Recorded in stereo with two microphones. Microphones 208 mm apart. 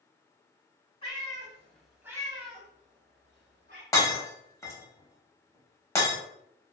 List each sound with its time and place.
1.0 s a cat meowing: 30° left (ahead or behind), 1.0 m; by 3.8 s 65° right (ahead or behind), 1.2 m
3.9 s breaking glass: 15° left (ahead or behind), 0.9 m